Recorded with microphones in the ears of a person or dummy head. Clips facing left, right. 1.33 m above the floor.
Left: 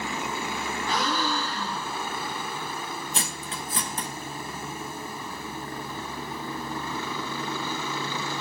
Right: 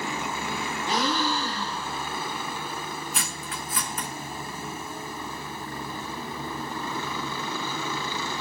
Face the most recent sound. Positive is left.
turn(degrees=25)  # may be behind; listen again after turning